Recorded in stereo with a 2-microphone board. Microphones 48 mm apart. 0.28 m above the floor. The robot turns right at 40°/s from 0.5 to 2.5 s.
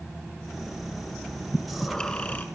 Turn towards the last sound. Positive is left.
turn(degrees=40)